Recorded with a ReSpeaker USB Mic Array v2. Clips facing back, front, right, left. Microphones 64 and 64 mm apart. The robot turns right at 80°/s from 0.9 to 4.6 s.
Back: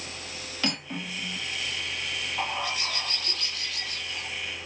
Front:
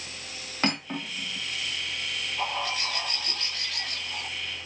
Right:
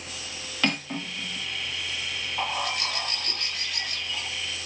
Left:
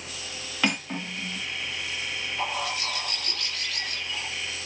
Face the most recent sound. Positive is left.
turn(degrees=40)